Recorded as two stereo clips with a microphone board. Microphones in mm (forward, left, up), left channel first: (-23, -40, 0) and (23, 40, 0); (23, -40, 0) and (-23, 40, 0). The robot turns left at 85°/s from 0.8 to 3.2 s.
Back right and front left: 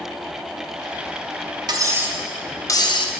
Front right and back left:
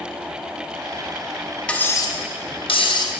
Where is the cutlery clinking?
20° left, 0.6 m; by 3.2 s 110° right, 0.6 m.